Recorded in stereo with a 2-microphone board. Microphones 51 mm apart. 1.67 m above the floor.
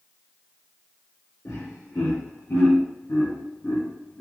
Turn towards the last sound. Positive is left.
turn(degrees=20)  # may be behind; listen again after turning